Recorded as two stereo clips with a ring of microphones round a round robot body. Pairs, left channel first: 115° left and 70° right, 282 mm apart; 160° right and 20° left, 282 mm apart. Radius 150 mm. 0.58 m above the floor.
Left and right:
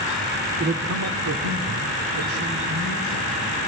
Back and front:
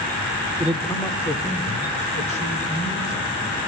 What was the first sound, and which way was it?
A man speaking, 65° right.